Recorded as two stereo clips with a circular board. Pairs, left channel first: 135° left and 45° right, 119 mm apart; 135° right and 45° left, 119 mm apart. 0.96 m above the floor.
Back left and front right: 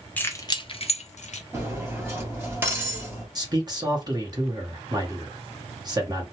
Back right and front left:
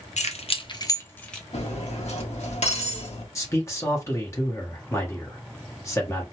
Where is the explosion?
I don't hear an explosion.